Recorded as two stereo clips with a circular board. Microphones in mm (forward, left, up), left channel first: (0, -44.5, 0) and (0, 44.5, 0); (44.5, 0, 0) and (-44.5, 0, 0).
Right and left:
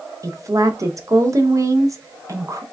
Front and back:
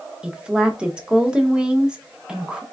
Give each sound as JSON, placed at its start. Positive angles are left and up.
{"t": 0.2, "sound": "a woman speaking", "azimuth_deg": 105, "distance_m": 0.8}